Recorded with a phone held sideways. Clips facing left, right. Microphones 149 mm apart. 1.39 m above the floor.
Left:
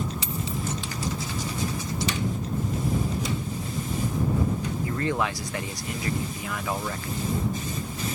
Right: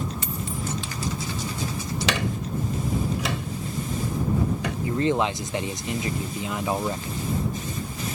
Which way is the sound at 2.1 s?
75° right (ahead or behind).